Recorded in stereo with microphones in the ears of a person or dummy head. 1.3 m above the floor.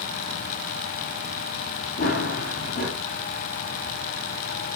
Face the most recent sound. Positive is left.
turn(degrees=60)  # may be behind; listen again after turning